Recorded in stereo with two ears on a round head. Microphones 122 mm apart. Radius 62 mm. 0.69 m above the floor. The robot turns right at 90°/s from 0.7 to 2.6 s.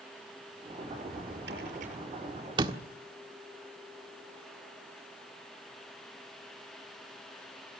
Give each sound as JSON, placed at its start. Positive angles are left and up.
{"t": 0.9, "sound": "a drawer", "azimuth_deg": -135, "distance_m": 6.5}
{"t": 2.6, "sound": "a door slam", "side_deg": -35, "distance_m": 1.4}